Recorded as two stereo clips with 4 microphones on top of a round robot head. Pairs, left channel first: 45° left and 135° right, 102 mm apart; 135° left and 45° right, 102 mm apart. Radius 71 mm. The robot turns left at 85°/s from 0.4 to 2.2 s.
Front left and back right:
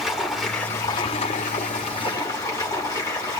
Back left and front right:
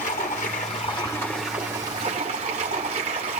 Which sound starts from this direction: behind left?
Running water, at 0.0 s.